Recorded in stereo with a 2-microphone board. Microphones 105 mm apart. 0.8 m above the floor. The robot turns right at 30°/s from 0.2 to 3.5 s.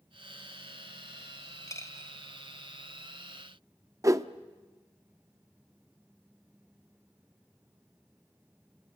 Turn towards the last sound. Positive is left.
turn(degrees=-30)  # may be behind; listen again after turning